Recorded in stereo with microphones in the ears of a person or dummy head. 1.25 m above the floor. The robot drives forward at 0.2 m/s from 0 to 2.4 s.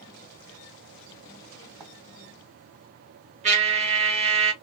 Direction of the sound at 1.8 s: 10° right (ahead or behind).